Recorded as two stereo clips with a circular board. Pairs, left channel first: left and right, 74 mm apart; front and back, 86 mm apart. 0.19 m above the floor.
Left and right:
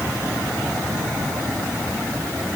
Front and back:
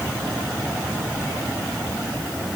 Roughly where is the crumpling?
No crumpling in this recording.